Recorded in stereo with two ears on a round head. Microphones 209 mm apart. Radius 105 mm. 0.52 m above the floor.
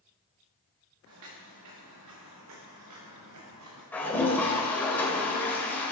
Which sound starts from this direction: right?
Footsteps, at 1.1 s.